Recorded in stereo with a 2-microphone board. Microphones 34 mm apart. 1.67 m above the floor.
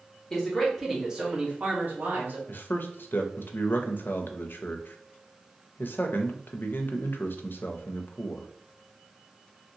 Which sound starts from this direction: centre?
A man speaking, at 0.3 s.